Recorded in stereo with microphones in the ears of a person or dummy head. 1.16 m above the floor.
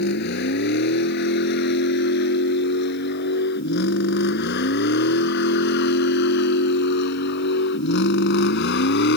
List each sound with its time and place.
0.0 s a vehicle: 55° left (ahead or behind); by 9.2 s 60° left (ahead or behind)